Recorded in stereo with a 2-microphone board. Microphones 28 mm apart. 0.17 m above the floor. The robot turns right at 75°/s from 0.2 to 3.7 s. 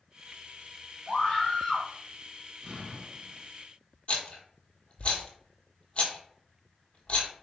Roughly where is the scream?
Left.